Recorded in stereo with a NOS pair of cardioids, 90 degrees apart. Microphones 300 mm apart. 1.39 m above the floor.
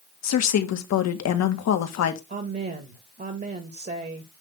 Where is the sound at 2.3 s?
30° right, 2.0 m.